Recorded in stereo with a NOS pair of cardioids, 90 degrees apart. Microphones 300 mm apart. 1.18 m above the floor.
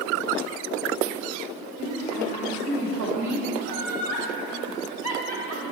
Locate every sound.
1.8 s a woman speaking: 65° right, 1.8 m
3.6 s laughter: 55° right, 1.8 m